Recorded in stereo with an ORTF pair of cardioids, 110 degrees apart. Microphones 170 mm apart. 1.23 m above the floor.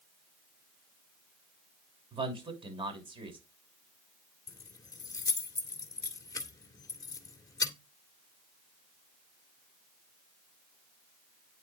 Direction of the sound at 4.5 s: 20° left.